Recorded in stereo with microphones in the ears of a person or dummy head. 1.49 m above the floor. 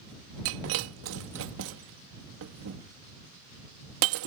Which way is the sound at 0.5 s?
70° right (ahead or behind).